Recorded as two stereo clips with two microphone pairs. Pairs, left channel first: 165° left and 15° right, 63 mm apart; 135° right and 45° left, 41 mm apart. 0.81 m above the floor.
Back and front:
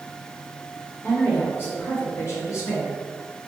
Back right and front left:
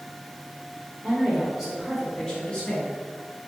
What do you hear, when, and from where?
1.0 s a woman speaking: 105° left, 1.3 m; by 2.9 s 170° left, 1.5 m